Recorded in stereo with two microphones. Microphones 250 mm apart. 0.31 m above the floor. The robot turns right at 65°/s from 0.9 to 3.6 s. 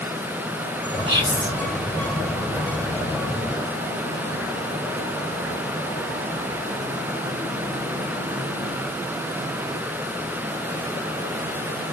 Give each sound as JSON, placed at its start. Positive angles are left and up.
{"t": 1.1, "sound": "whispering", "azimuth_deg": -30, "distance_m": 1.6}